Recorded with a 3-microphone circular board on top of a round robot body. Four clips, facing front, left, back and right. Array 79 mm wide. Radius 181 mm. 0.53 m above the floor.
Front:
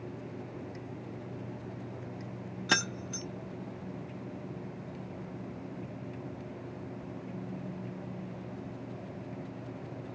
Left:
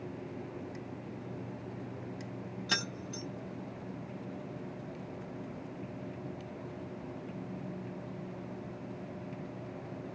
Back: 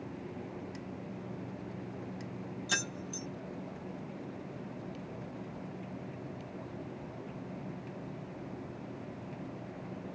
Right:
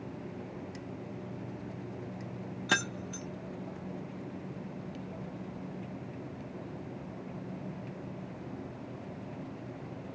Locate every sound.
2.7 s keys jangling: 35° right, 0.5 m